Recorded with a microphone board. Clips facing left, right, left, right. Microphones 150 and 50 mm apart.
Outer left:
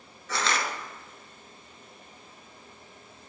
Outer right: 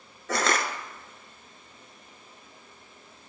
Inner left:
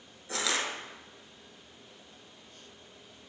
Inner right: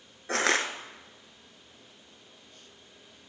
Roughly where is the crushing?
Right.